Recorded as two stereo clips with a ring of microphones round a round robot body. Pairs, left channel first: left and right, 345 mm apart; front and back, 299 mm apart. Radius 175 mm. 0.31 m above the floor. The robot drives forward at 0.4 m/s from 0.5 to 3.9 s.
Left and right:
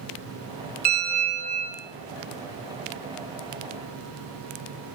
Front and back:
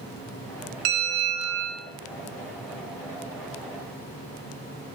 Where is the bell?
155° right, 2.5 m; by 1.8 s 160° right, 3 m.